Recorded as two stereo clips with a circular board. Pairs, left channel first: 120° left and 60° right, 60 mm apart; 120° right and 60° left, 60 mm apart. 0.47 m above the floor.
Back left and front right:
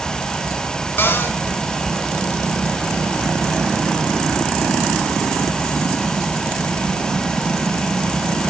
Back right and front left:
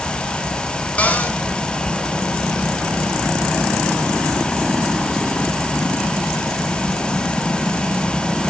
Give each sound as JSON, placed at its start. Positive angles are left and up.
{"t": 1.0, "sound": "a cupboard door", "azimuth_deg": 175, "distance_m": 2.0}